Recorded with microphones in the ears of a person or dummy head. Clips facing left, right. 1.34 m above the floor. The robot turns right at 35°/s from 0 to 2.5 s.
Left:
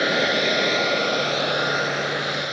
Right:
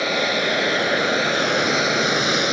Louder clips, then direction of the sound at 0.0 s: Left 1 dB; 155° left.